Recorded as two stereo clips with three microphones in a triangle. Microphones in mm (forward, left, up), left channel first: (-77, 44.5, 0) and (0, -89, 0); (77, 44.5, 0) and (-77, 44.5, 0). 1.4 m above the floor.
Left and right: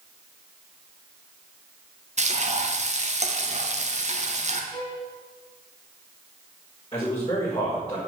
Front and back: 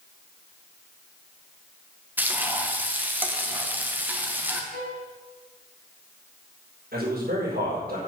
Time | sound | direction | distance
2.2 | frying | 100° right | 1.5 m
4.7 | a violin | 170° right | 3 m
6.9 | a man speaking | 175° left | 5 m